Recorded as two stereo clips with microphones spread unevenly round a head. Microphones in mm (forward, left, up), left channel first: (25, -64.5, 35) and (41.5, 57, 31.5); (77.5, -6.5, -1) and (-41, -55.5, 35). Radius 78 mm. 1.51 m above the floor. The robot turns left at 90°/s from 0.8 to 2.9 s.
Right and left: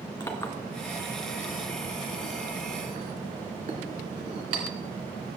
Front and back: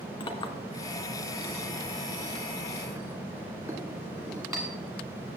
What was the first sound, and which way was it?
A clink, 30° right.